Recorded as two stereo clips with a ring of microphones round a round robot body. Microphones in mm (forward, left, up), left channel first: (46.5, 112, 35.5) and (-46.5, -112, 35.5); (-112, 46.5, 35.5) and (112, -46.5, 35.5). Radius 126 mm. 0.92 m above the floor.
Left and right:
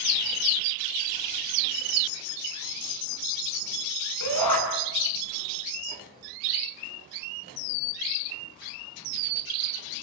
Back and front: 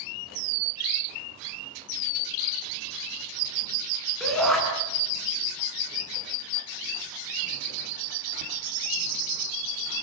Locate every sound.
4.2 s a shout: 70° left, 8.5 m